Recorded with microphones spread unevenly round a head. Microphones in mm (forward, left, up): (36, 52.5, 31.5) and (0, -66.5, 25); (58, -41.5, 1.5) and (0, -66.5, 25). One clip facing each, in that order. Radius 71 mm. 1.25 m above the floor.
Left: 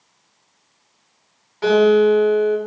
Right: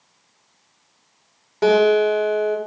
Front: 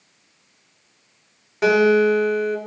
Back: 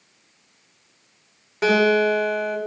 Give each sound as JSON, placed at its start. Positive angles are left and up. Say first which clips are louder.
{"t": 1.6, "sound": "a guitar", "louder": "left 2 dB, front 2 dB", "azimuth_deg": -65, "distance_m": 8.5}